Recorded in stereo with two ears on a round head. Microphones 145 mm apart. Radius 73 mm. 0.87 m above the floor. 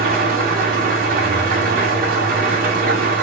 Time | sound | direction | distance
0.0 | an engine running | 55° right (ahead or behind) | 2.0 m